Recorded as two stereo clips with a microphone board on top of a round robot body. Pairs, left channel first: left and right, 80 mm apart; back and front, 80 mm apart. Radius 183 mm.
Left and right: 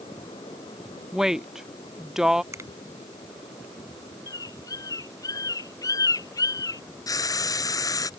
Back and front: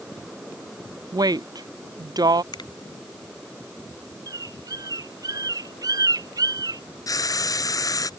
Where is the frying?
135° left.